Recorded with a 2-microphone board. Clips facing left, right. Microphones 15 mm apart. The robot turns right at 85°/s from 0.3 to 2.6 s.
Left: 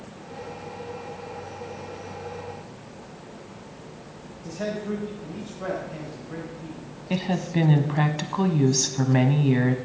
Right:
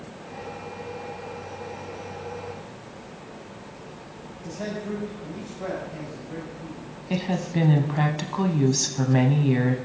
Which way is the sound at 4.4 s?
10° left (ahead or behind).